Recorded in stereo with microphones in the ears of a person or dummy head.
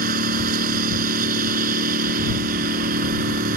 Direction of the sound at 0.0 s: 55° right (ahead or behind).